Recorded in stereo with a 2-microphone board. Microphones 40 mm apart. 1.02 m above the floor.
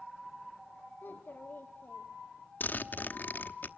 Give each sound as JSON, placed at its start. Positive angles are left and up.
{"t": 1.0, "sound": "a child speaking", "side_deg": 50, "distance_m": 1.6}
{"t": 2.6, "sound": "a zipper", "side_deg": 50, "distance_m": 1.0}